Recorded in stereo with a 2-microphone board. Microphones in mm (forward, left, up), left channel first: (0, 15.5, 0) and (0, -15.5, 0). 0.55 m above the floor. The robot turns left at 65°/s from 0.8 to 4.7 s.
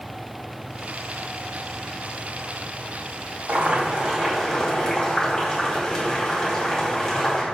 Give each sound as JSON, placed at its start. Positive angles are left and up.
{"t": 3.5, "sound": "boiling", "azimuth_deg": -115, "distance_m": 2.5}